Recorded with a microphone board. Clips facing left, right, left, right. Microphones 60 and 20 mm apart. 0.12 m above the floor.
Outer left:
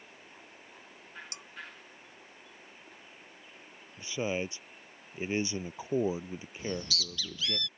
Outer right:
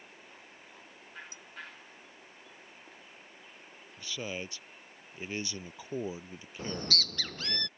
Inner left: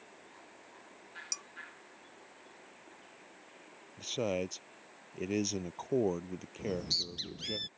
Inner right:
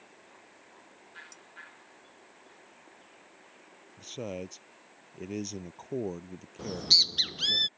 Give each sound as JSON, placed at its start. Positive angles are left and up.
{"t": 1.3, "sound": "dishes clattering", "side_deg": 75}
{"t": 4.0, "sound": "a man speaking", "side_deg": 20}
{"t": 6.6, "sound": "a bird", "side_deg": -50}